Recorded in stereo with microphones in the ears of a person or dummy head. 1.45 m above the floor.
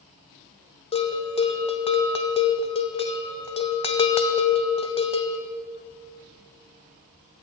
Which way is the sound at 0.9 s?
30° left (ahead or behind).